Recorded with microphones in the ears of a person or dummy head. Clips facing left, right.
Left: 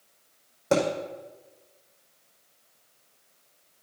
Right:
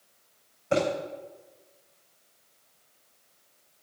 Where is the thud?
75° left (ahead or behind), 5 m.